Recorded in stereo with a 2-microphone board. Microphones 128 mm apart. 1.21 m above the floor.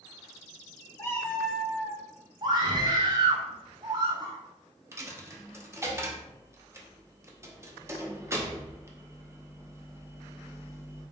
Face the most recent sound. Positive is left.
turn(degrees=-20)  # may be behind; listen again after turning